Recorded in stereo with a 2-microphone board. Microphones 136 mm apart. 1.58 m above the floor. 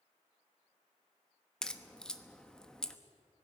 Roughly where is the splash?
I don't hear a splash.